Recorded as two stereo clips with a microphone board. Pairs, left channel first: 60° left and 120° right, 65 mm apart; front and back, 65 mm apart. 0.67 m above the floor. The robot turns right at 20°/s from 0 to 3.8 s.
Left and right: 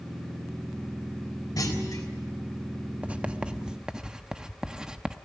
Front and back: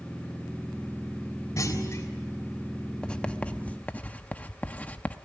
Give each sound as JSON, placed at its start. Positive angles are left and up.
{"t": 1.6, "sound": "a clunk", "azimuth_deg": 35, "distance_m": 3.5}
{"t": 3.0, "sound": "writing", "azimuth_deg": -65, "distance_m": 0.9}